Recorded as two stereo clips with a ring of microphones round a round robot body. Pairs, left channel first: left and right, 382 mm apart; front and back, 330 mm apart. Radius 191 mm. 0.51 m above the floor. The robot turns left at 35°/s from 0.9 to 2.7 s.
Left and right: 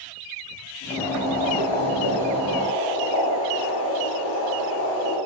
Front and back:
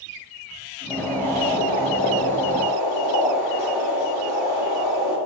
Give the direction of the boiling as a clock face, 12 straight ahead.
9 o'clock.